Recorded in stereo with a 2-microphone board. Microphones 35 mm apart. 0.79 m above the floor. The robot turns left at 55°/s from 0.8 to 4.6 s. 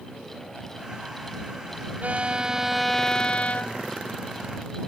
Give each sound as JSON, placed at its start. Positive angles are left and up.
{"t": 2.0, "sound": "a violin", "azimuth_deg": -135}